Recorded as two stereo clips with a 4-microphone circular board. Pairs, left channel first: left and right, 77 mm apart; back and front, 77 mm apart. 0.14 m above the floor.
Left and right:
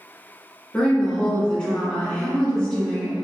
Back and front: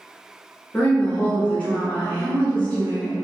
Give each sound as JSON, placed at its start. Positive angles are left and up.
{"t": 0.7, "sound": "a woman speaking", "azimuth_deg": 145, "distance_m": 1.1}